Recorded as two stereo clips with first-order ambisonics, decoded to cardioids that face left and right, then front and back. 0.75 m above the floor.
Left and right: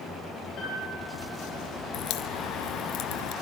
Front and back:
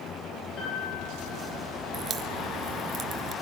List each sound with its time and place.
0.6 s a piano: 45° left, 10 m
1.9 s a crack: 120° left, 2.5 m